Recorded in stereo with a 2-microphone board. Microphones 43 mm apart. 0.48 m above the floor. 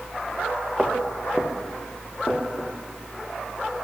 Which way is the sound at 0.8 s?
10° right (ahead or behind).